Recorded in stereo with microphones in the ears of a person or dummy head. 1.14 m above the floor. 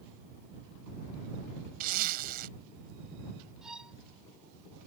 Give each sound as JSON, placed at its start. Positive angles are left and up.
{"t": 1.8, "sound": "a zipper", "side_deg": -50}
{"t": 3.6, "sound": "a violin", "side_deg": -5}